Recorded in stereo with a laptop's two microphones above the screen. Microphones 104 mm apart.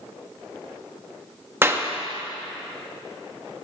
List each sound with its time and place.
1.6 s a clap: 25° right (ahead or behind), 0.8 m